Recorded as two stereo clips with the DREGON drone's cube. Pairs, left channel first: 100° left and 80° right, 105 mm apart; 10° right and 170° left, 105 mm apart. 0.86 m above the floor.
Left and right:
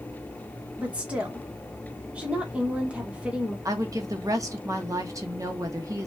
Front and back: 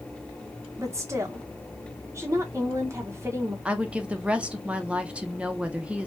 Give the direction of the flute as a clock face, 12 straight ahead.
No flute in this recording.